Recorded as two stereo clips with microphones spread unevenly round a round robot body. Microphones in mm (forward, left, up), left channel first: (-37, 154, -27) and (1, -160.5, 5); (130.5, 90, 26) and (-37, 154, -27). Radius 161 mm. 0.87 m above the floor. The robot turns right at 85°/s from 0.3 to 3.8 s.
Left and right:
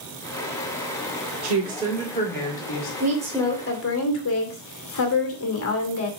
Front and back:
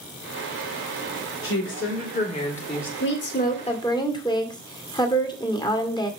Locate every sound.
1.4 s a woman speaking: 40° right, 2.5 m; by 2.9 s 85° left, 2.5 m
3.0 s a woman speaking: 20° right, 2 m; by 6.1 s 50° left, 2 m